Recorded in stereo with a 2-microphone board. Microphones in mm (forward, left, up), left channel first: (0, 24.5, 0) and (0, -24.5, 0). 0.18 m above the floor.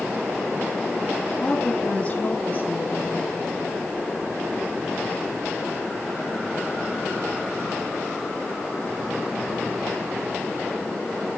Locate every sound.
1.4 s a woman speaking: 20° left (ahead or behind), 2 m; by 3.5 s 50° left (ahead or behind), 3.5 m